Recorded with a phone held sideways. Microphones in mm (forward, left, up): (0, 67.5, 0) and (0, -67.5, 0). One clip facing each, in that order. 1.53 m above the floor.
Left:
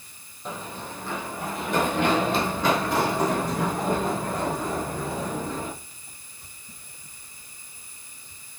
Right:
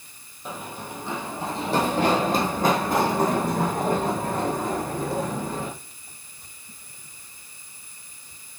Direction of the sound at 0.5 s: 5° right (ahead or behind).